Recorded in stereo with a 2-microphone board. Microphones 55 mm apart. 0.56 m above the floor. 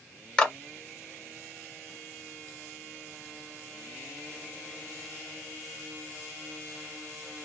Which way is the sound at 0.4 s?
15° left (ahead or behind).